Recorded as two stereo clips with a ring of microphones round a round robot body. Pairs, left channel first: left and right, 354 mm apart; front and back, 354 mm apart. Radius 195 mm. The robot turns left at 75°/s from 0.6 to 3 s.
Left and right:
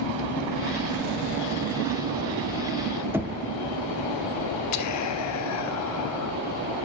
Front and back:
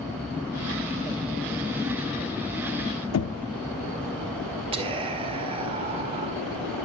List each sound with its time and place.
3.1 s knocking: 10° right, 0.6 m
4.7 s whispering: 110° left, 1.8 m